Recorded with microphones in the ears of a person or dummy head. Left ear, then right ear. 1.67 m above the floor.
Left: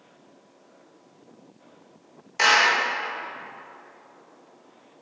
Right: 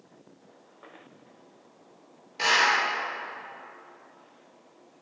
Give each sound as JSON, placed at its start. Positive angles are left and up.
{"t": 2.4, "sound": "a clap", "side_deg": 50, "distance_m": 1.9}